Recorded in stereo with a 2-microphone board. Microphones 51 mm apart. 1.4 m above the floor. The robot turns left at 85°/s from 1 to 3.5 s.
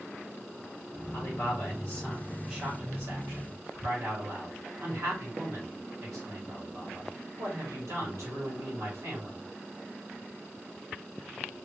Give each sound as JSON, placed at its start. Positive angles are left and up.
{"t": 1.1, "sound": "a man speaking", "azimuth_deg": 100, "distance_m": 1.8}